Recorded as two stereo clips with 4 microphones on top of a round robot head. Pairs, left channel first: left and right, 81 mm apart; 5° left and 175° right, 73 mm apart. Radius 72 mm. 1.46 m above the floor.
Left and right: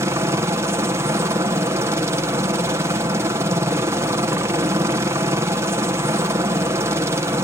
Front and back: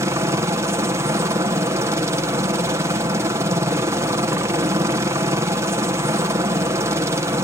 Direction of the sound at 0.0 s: 135° right.